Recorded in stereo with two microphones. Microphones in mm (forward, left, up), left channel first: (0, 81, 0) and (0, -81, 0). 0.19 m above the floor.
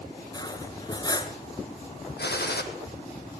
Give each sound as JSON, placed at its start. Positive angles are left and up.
{"t": 0.3, "sound": "cutlery clinking", "side_deg": 25, "distance_m": 1.6}
{"t": 2.2, "sound": "a gunshot", "side_deg": 85, "distance_m": 2.5}